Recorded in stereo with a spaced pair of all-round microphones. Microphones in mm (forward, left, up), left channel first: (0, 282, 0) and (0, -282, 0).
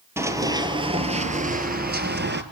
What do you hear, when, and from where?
0.2 s running footsteps: 5° right (ahead or behind), 1.6 m; by 2.4 s 20° right (ahead or behind), 1.4 m